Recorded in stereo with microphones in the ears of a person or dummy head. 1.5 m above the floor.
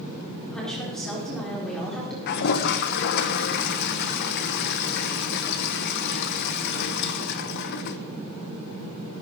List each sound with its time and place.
0.4 s a woman speaking: 5° left (ahead or behind), 4.5 m
2.3 s a toilet flushing: 55° left (ahead or behind), 0.9 m